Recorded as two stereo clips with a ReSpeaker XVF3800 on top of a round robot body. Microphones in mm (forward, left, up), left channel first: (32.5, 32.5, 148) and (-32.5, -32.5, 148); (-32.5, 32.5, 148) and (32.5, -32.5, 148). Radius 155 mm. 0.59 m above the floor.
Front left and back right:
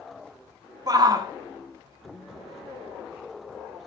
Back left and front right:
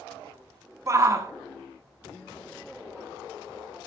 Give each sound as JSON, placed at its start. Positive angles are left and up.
{"t": 0.9, "sound": "a shout", "azimuth_deg": -100, "distance_m": 1.7}